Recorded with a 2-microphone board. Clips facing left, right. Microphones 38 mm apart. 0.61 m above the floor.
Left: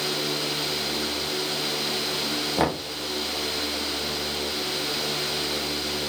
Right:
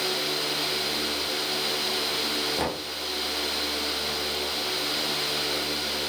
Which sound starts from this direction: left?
Knocking, at 2.6 s.